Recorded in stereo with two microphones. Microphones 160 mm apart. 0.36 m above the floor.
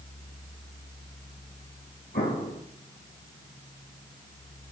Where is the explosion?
85° left, 2.5 m.